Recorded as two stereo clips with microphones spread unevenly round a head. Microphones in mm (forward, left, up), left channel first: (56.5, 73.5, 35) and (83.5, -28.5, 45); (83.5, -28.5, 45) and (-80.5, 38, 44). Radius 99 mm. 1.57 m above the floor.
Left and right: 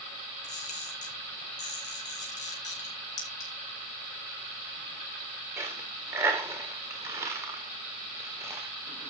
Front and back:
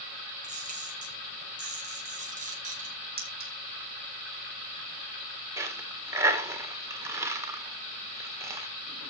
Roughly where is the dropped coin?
Behind right.